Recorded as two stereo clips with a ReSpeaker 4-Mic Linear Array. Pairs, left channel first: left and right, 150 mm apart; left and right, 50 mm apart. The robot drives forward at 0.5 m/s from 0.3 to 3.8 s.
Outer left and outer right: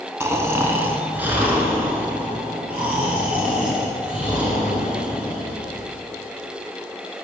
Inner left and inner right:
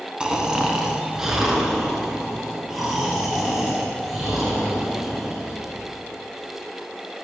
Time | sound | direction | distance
0.2 | snoring | 20° right (ahead or behind) | 0.9 m